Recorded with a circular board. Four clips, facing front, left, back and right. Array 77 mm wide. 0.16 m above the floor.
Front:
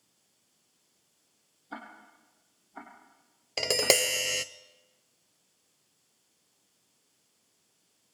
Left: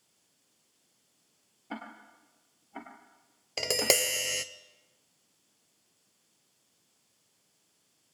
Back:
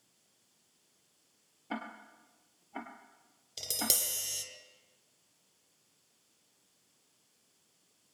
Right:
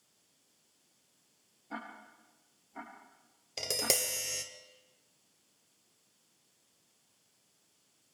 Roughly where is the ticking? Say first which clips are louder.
Left 2 dB, back 3 dB; behind left.